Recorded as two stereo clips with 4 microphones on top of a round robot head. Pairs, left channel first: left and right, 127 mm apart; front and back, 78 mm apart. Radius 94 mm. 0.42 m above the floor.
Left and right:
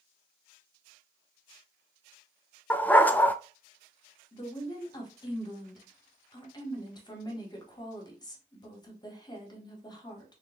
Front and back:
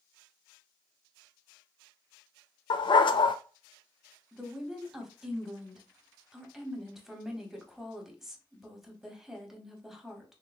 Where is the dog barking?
15° left, 0.6 m.